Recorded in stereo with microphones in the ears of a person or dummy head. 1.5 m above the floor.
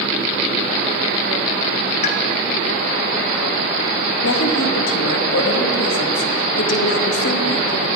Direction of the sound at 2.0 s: 45° left (ahead or behind).